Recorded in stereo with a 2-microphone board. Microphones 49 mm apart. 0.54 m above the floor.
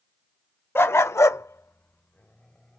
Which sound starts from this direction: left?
A dog barking, at 0.8 s.